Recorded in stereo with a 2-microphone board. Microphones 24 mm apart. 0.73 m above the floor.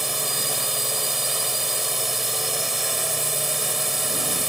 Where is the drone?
10° right (ahead or behind).